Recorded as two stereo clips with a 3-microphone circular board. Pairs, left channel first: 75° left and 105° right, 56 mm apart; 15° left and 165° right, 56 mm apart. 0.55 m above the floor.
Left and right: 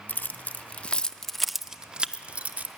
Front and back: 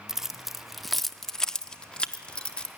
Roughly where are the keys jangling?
Behind left.